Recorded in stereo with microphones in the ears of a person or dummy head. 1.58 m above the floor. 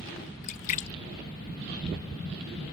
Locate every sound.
0.4 s a splash: 40° left (ahead or behind)